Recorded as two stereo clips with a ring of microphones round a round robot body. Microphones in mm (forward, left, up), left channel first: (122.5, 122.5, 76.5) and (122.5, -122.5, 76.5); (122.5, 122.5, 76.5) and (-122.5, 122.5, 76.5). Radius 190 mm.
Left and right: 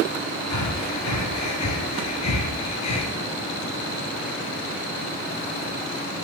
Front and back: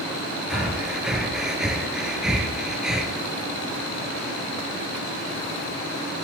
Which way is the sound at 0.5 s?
90° left.